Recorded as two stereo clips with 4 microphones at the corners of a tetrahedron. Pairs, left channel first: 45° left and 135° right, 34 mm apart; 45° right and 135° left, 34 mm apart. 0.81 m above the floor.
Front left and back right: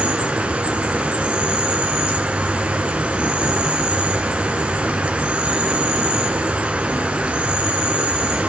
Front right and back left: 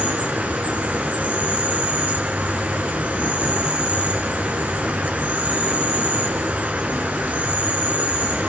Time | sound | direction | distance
0.0 | an insect | 175° left | 5 m